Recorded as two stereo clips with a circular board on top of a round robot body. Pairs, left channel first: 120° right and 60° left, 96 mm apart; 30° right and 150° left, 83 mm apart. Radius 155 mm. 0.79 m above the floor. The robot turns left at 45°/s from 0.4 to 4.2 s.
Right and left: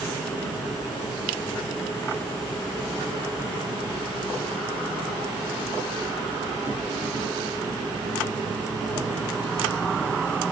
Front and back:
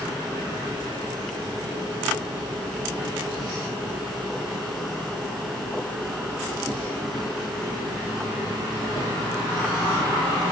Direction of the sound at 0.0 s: 125° right.